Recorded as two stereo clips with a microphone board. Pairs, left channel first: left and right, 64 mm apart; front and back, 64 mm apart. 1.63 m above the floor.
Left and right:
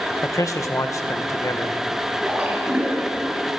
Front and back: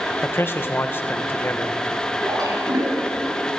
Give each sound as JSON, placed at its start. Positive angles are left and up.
{"t": 0.2, "sound": "a man speaking", "azimuth_deg": 55, "distance_m": 1.7}
{"t": 2.2, "sound": "a splash", "azimuth_deg": -165, "distance_m": 7.5}